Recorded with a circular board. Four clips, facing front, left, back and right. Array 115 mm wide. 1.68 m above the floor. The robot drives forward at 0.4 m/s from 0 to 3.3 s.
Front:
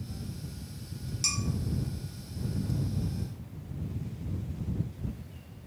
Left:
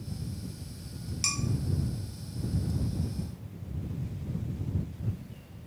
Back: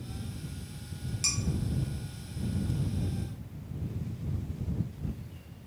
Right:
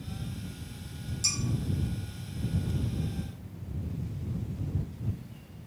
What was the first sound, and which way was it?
Dishes clattering, 100° left.